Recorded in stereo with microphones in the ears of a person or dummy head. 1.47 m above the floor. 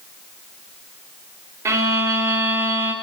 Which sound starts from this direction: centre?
A violin, at 1.6 s.